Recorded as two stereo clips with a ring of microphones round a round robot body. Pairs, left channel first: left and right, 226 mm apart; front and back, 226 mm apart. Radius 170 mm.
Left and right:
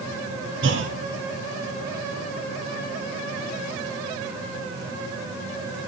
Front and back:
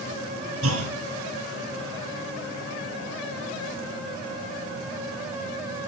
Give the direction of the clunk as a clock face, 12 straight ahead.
5 o'clock.